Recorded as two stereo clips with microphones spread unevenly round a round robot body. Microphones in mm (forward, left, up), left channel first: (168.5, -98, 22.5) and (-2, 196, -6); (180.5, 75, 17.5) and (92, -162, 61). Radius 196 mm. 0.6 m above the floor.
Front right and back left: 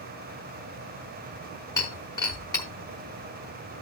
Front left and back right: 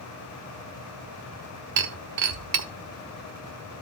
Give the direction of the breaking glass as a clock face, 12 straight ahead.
5 o'clock.